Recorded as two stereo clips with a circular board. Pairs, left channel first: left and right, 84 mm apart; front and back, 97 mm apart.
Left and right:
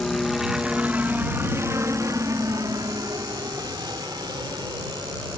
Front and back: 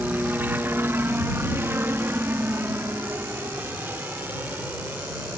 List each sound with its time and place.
0.0 s a helicopter: 165° left; by 5.4 s 110° right